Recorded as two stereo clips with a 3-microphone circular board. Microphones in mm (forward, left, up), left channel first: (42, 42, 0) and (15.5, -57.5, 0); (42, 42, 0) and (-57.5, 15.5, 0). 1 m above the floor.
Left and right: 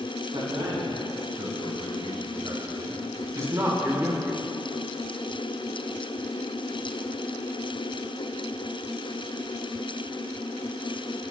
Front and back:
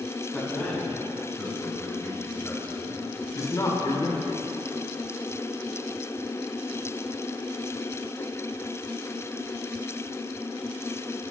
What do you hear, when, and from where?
0.3 s a man speaking: 65° right, 6 m; by 4.4 s 25° right, 2 m